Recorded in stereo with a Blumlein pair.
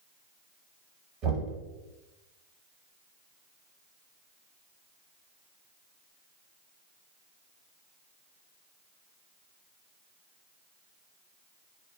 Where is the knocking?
35° right, 1.1 m.